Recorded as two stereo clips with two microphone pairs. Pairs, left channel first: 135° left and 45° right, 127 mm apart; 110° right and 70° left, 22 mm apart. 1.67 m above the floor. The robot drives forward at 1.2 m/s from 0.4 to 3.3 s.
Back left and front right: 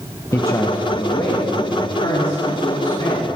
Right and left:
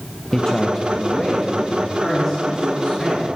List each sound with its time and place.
0.3 s a man speaking: 160° right, 1.0 m; by 3.3 s 175° right, 4.5 m